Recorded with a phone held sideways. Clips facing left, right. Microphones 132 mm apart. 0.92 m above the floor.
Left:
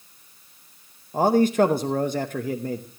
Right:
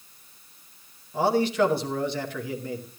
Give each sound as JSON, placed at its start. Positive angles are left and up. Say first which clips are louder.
{"t": 1.1, "sound": "a man speaking", "louder": "left 4 dB", "side_deg": 45, "distance_m": 0.8}